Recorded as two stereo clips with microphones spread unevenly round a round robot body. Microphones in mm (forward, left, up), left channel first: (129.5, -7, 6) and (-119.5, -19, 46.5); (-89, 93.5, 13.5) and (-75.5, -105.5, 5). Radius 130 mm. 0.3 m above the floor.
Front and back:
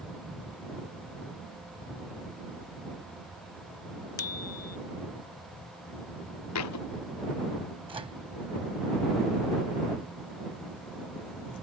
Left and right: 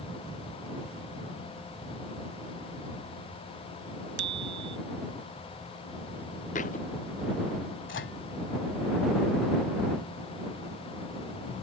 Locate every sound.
4.2 s a bicycle bell: 40° right
6.5 s a thud: 30° left
7.9 s a microwave: 110° left